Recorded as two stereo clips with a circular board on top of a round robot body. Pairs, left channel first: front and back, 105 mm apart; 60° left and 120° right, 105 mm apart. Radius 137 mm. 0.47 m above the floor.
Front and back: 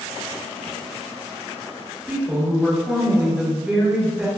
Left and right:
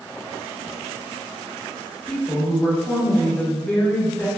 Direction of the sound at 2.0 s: 110° left.